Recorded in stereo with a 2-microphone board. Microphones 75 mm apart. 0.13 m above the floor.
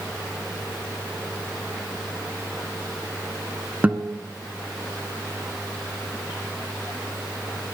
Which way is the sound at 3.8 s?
20° right (ahead or behind).